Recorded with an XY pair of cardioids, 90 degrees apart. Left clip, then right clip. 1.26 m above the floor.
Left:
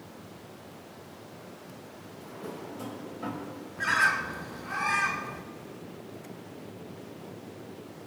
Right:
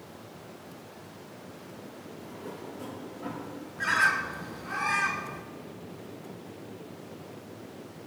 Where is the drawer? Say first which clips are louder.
Left 2 dB; 60° left, 4.5 m.